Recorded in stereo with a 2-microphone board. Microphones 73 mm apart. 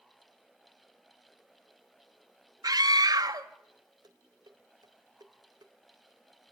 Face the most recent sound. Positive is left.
turn(degrees=-65)  # may be behind; listen again after turning